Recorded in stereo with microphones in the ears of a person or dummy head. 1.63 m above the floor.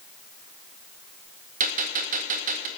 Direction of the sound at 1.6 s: 45° right (ahead or behind).